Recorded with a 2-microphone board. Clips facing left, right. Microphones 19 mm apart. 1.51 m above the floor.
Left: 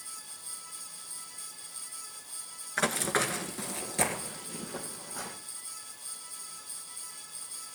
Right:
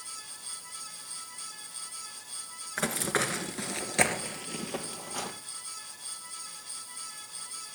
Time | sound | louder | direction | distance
2.8 | running footsteps | left 1 dB | 10° left (ahead or behind) | 1.5 m